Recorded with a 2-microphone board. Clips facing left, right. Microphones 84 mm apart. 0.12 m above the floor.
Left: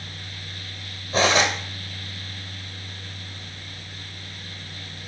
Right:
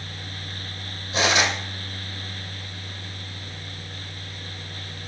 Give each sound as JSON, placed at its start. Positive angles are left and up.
{"t": 1.1, "sound": "cutlery clinking", "side_deg": 40, "distance_m": 2.5}